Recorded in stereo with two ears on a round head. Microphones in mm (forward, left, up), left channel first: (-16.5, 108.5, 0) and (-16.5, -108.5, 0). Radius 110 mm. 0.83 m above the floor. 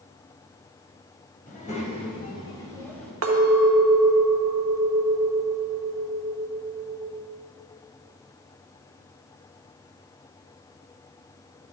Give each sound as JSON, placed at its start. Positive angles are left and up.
{"t": 1.5, "sound": "a child speaking", "side_deg": 35, "distance_m": 2.5}
{"t": 3.2, "sound": "a clink", "side_deg": -60, "distance_m": 1.3}